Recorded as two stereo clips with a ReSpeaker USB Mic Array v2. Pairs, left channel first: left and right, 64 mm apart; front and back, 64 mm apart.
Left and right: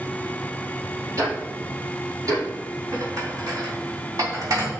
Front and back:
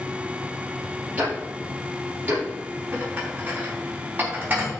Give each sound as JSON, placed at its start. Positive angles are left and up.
{"t": 1.2, "sound": "ticking", "azimuth_deg": -115, "distance_m": 5.0}
{"t": 2.9, "sound": "dishes clattering", "azimuth_deg": -115, "distance_m": 3.0}